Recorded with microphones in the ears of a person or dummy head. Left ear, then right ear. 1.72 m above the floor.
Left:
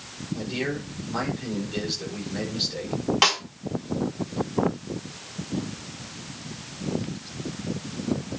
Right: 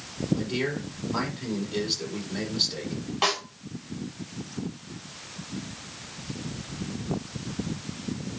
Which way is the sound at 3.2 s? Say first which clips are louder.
Left 4 dB; 40° left (ahead or behind).